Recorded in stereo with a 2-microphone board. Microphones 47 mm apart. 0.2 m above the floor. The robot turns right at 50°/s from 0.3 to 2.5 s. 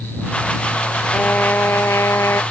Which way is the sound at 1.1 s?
35° left.